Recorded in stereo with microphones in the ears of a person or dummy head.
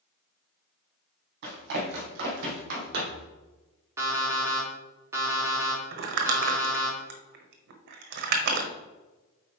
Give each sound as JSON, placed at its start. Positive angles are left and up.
{"t": 1.4, "sound": "running footsteps", "side_deg": -60, "distance_m": 3.0}
{"t": 4.0, "sound": "an alarm clock", "side_deg": -20, "distance_m": 2.0}
{"t": 5.9, "sound": "crumpling", "side_deg": -65, "distance_m": 1.1}